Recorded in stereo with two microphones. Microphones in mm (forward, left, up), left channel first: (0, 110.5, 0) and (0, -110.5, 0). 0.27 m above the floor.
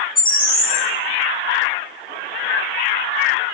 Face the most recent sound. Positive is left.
turn(degrees=65)  # may be behind; listen again after turning